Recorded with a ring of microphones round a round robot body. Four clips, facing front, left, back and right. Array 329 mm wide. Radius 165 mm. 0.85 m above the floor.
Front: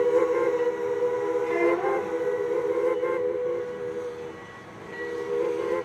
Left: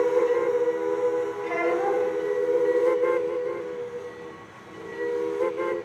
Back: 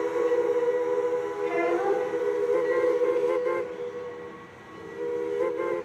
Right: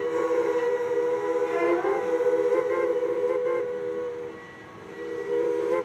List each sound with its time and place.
1.4 s a child speaking: 120° left, 3.5 m